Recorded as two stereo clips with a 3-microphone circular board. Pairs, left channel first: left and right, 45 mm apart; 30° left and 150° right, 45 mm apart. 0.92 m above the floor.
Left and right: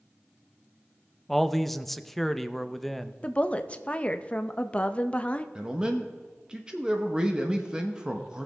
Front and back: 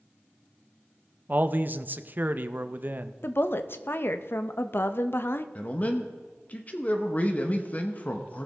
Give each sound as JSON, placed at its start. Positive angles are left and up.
{"t": 1.3, "sound": "a man speaking", "azimuth_deg": 175, "distance_m": 0.6}
{"t": 3.2, "sound": "a woman speaking", "azimuth_deg": 35, "distance_m": 0.7}
{"t": 5.5, "sound": "a man speaking", "azimuth_deg": -20, "distance_m": 1.0}